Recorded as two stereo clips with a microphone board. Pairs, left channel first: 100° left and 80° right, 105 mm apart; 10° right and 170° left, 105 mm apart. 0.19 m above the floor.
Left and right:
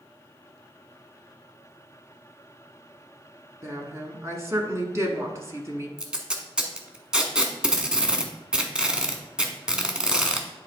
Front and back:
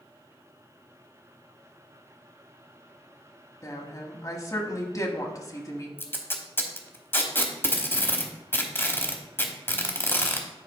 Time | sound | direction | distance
3.6 | a woman speaking | 40° right | 1.2 m
6.0 | tape being pulled | 15° right | 0.9 m